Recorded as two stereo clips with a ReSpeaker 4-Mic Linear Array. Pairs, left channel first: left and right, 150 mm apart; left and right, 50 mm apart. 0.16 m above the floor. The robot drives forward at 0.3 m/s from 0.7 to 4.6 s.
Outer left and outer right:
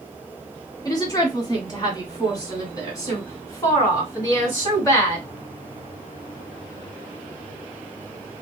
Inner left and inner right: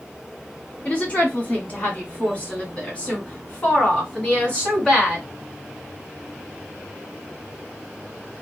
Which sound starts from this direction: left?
A woman speaking, at 0.8 s.